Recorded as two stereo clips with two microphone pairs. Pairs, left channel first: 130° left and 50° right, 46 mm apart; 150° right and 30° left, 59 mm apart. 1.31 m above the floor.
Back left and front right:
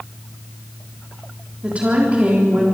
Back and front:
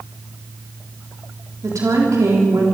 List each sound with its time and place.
1.6 s a woman speaking: 10° left, 3.5 m